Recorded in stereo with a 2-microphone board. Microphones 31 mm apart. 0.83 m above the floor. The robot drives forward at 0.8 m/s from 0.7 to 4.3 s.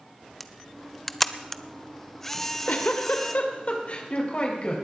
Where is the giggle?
75° left (ahead or behind), 1.6 m; by 4.8 s 40° left (ahead or behind), 2.5 m.